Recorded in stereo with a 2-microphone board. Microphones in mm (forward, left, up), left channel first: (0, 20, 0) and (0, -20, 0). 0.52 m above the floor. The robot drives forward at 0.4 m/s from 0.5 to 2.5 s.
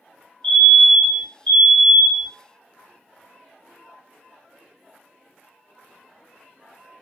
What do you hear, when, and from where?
0.4 s a fire alarm: 30° left (ahead or behind), 2.5 m